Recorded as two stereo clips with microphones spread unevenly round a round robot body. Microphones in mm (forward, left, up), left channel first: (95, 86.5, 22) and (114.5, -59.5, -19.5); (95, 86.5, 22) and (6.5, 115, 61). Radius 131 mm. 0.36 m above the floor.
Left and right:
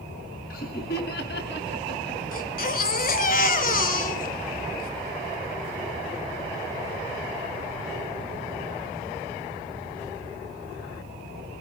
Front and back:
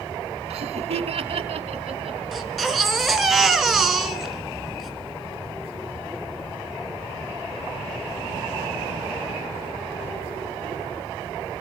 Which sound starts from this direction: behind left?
Laughter, at 0.5 s.